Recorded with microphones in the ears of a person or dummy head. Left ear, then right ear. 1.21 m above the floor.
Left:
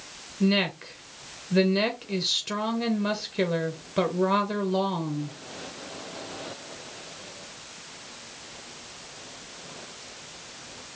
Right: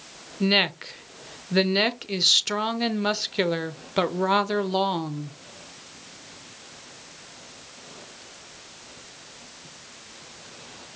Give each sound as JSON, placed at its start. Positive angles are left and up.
{"t": 0.4, "sound": "a woman speaking", "side_deg": -40, "distance_m": 0.6}